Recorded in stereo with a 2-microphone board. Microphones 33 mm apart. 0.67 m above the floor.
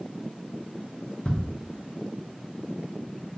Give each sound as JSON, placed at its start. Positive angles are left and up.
{"t": 1.2, "sound": "ticking", "side_deg": 25, "distance_m": 1.2}